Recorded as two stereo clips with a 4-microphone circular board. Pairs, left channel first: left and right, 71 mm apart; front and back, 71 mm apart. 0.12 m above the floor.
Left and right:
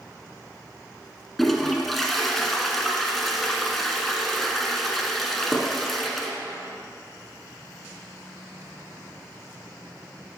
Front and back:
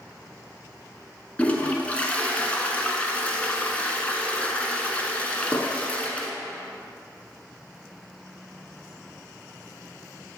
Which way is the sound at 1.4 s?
5° left.